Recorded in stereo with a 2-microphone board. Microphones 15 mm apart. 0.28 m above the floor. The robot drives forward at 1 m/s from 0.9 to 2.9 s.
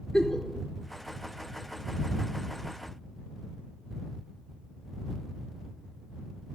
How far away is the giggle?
About 1.0 m.